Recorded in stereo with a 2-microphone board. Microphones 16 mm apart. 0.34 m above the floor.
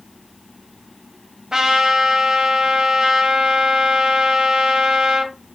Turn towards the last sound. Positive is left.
turn(degrees=-50)  # may be behind; listen again after turning